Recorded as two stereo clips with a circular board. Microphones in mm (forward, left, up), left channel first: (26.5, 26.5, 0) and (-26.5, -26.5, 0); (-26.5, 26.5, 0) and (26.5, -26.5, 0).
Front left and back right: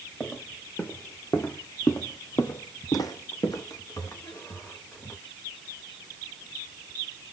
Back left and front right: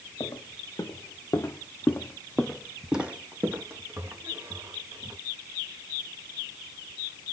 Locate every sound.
0.2 s footsteps: 110° left, 1.5 m; by 5.2 s 10° right, 1.6 m